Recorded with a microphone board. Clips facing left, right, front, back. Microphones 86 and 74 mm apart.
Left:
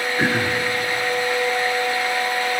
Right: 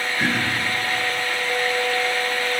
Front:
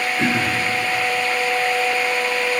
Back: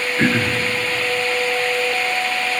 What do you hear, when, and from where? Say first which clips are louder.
0.2 s throat clearing: left 3 dB, back 4 dB; 140° left, 0.7 m